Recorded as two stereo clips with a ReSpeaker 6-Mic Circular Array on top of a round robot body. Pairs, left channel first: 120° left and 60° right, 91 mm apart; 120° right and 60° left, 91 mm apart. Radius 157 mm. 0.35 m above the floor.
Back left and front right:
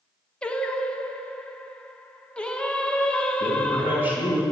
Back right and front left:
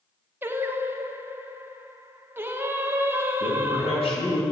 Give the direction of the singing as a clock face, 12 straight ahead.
10 o'clock.